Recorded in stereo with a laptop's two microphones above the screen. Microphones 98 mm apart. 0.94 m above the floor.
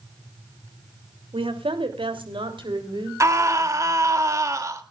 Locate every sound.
1.3 s a woman speaking: 85° right, 3 m; by 3.1 s 65° right (ahead or behind), 4 m
3.2 s a scream: 35° right (ahead or behind), 2 m